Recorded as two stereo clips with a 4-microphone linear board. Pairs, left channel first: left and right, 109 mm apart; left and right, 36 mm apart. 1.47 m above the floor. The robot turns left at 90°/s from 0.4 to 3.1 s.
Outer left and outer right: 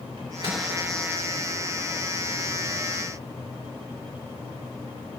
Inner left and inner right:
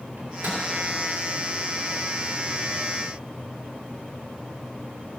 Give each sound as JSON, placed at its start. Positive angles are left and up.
{"t": 0.2, "sound": "a microwave", "side_deg": -65, "distance_m": 3.5}